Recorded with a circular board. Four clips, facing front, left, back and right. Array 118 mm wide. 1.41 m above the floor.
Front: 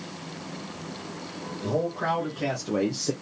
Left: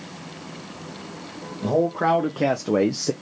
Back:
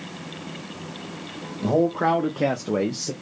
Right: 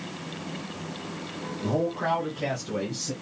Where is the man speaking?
140° left, 1.2 m; by 3.1 s 75° left, 0.5 m.